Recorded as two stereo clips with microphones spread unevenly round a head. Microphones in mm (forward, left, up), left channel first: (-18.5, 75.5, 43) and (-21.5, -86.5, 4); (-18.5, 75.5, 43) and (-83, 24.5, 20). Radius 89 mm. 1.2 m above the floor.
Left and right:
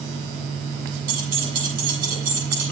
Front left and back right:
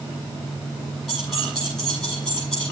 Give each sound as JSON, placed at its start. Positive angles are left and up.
{"t": 1.1, "sound": "keys jangling", "azimuth_deg": -50, "distance_m": 7.5}